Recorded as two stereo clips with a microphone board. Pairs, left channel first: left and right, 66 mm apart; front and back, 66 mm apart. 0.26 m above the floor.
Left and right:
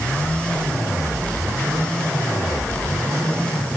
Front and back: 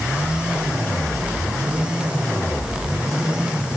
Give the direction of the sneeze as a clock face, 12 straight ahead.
No sneeze in this recording.